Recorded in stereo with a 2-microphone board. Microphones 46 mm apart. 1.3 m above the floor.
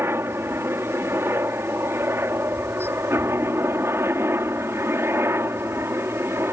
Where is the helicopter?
65° right (ahead or behind).